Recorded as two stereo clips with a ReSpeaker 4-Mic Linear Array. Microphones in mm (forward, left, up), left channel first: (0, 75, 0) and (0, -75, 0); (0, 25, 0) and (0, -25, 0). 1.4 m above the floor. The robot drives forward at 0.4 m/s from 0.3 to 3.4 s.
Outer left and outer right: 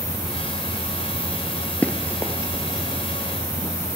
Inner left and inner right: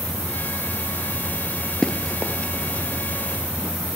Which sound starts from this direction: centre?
Running footsteps, at 1.8 s.